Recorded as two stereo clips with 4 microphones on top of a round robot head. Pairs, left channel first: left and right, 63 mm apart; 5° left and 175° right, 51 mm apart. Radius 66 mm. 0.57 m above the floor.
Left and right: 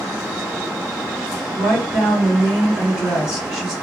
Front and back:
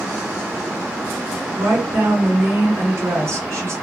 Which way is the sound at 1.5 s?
165° right.